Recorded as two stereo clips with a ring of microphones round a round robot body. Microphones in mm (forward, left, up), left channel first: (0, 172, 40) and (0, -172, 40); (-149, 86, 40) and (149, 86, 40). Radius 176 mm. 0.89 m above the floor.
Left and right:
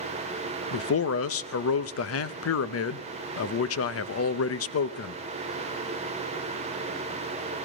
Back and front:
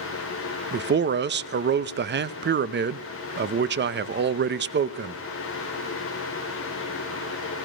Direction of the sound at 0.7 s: 50° left.